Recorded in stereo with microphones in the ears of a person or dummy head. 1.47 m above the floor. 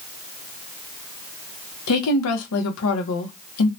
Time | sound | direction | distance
1.9 | a woman speaking | 80° left | 0.8 m